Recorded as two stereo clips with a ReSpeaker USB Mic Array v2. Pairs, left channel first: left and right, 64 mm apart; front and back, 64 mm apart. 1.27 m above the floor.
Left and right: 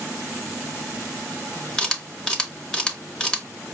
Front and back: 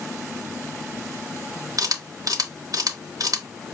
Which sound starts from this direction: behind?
A camera shutter, at 1.8 s.